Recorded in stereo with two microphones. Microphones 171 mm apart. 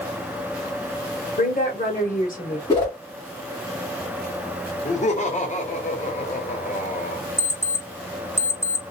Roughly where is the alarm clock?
Centre.